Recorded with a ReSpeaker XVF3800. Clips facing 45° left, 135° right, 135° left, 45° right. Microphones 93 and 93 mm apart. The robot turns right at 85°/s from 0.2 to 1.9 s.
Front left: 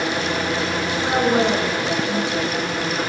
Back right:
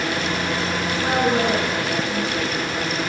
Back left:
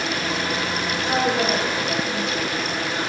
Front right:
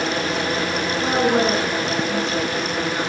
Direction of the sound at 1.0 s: 55° right.